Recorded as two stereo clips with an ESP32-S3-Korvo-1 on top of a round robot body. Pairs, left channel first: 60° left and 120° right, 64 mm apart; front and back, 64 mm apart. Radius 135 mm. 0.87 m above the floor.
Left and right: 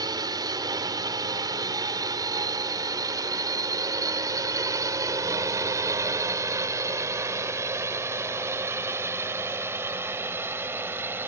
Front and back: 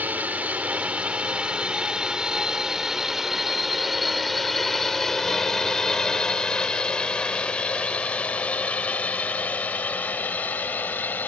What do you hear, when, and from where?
0.0 s a drone: 115° right; by 11.3 s 60° right